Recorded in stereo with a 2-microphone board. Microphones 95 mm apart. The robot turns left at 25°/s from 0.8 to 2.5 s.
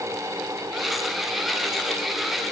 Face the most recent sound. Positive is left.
No sound to turn to.